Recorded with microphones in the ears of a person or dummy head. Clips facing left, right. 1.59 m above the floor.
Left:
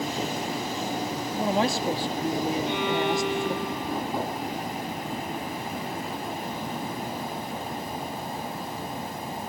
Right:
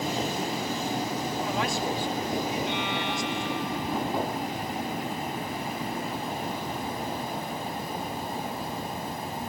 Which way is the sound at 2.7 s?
40° left (ahead or behind).